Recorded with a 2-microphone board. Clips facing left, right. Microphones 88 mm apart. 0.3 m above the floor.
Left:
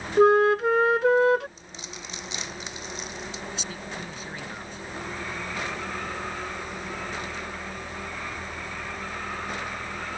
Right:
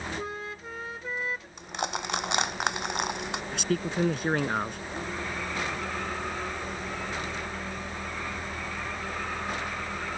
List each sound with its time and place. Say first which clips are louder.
0.2 s a flute: left 19 dB; 75° left (ahead or behind)
1.6 s crushing: right 10 dB; 65° right (ahead or behind)
3.5 s a man speaking: right 8 dB; 60° right (ahead or behind)